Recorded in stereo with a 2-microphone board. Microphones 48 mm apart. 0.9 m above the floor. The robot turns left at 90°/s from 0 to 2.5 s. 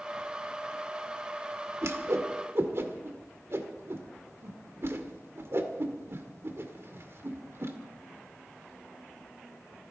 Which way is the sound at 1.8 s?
60° right (ahead or behind).